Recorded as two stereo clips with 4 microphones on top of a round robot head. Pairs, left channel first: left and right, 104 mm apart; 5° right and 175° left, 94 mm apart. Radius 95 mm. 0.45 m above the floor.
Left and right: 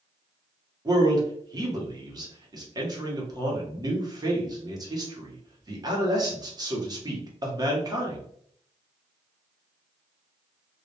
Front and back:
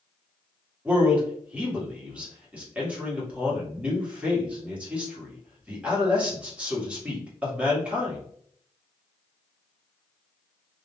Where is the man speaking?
110° right, 1.0 m.